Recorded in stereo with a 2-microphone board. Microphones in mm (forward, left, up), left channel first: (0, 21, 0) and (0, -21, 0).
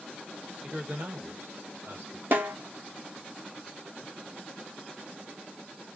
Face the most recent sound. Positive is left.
turn(degrees=-60)  # may be behind; listen again after turning